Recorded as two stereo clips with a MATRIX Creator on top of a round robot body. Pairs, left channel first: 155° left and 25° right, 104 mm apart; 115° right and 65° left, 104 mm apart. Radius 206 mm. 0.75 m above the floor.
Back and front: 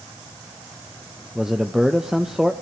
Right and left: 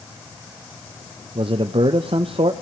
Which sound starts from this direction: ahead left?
A man speaking, at 1.4 s.